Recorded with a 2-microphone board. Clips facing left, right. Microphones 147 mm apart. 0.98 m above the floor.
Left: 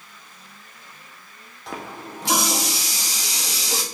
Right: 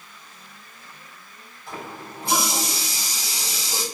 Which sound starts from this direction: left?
A running tap, at 1.7 s.